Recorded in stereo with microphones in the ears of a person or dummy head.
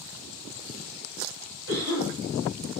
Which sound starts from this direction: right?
A cough, at 1.7 s.